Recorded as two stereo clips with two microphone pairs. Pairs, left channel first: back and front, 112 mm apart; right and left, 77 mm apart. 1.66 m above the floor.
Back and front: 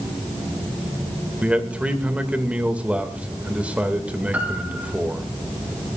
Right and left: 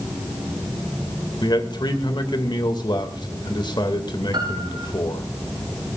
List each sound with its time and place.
1.4 s a man speaking: 80° right, 2 m
4.3 s a piano: 75° left, 3 m